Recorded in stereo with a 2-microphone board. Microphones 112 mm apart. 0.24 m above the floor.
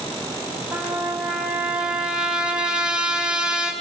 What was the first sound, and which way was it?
A trumpet, 5° right (ahead or behind).